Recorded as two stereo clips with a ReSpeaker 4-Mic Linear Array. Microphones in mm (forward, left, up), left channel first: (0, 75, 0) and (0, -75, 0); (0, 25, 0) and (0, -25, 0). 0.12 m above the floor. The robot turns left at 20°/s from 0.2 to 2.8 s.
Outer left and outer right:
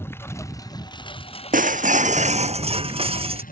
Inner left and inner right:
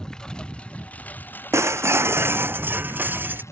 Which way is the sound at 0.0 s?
165° left.